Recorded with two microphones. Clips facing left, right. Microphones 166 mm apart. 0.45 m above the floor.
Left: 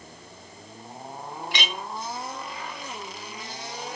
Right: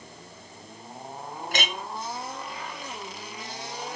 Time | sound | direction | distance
1.5 | a clink | 50° right (ahead or behind) | 1.8 m